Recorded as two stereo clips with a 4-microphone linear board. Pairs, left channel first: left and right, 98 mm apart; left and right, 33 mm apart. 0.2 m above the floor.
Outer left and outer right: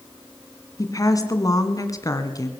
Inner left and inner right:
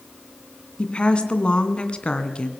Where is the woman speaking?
35° left (ahead or behind), 2 m.